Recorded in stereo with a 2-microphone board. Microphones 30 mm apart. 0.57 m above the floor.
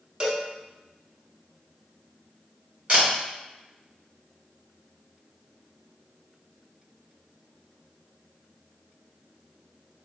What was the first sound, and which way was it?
A cowbell, 30° right (ahead or behind).